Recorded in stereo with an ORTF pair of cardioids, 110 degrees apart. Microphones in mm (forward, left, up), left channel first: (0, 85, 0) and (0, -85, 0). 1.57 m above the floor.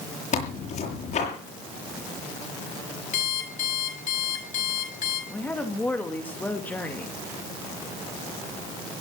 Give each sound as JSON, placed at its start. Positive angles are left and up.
{"t": 0.3, "sound": "tearing paper", "azimuth_deg": 45, "distance_m": 7.0}
{"t": 3.1, "sound": "an alarm clock", "azimuth_deg": 50, "distance_m": 5.0}
{"t": 5.3, "sound": "a woman speaking", "azimuth_deg": 10, "distance_m": 2.5}